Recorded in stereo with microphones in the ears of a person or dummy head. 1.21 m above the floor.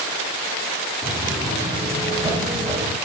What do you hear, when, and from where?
1.0 s footsteps: centre (ahead or behind), 2.5 m; by 3.0 s 20° right (ahead or behind), 3 m